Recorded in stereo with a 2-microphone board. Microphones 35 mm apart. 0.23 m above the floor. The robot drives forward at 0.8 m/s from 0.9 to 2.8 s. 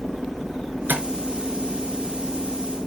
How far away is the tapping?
About 4 m.